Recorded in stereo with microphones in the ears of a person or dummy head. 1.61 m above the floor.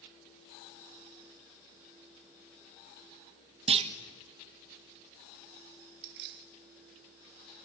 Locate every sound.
3.7 s a clunk: 35° right (ahead or behind), 1.2 m
6.0 s keys jangling: 60° right (ahead or behind), 1.6 m